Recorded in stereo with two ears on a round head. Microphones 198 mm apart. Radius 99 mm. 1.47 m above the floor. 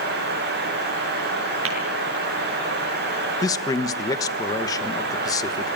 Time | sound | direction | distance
1.6 | tapping | 65° right (ahead or behind) | 7 m
3.4 | a man speaking | 15° left (ahead or behind) | 1.3 m